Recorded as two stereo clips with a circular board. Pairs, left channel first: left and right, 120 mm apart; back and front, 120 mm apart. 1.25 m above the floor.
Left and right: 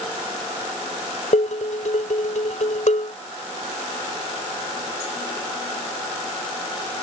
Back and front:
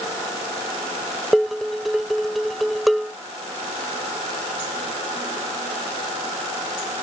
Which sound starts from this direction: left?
Dishes clattering, at 1.3 s.